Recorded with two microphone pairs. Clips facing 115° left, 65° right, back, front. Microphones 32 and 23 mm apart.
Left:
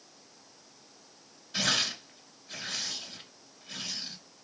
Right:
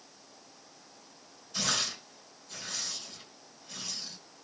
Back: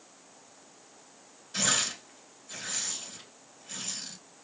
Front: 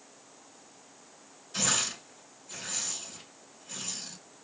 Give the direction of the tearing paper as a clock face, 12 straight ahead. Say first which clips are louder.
Left 3 dB, back 1 dB; 8 o'clock.